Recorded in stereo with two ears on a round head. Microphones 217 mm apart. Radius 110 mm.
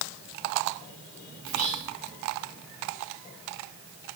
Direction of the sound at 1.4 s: 35° right (ahead or behind).